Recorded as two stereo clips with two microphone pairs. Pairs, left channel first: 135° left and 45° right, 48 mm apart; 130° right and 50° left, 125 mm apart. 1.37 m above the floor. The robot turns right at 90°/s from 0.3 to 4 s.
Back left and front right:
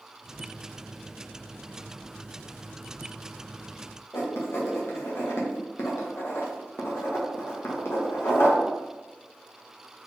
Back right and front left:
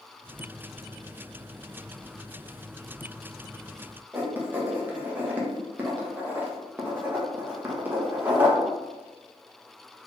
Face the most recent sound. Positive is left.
turn(degrees=120)